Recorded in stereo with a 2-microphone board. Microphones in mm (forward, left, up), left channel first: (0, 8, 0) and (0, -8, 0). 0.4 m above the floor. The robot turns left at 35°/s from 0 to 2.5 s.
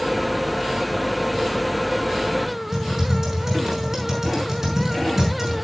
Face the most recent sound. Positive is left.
turn(degrees=-35)  # may be behind; listen again after turning